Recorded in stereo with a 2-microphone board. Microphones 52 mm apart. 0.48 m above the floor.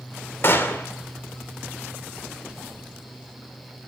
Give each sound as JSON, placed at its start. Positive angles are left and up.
{"t": 0.4, "sound": "a gunshot", "side_deg": 50, "distance_m": 1.2}